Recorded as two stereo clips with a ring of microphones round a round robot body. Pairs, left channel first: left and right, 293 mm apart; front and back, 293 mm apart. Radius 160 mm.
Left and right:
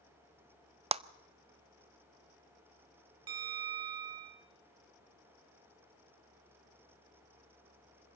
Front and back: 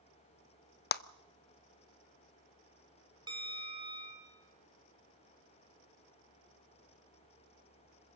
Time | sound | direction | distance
0.9 | a clap | 30° right | 0.6 m
3.3 | a bell | 105° right | 3.5 m